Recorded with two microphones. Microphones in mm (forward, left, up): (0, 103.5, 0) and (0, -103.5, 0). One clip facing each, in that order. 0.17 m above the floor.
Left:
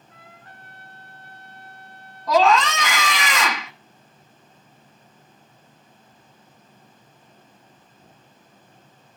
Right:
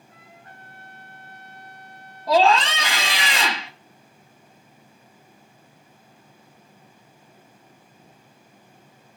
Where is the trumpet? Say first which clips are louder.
Left 1 dB; 25° right (ahead or behind), 1.9 m.